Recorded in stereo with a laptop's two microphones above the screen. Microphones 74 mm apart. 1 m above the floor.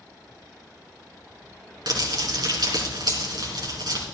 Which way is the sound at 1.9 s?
75° right (ahead or behind).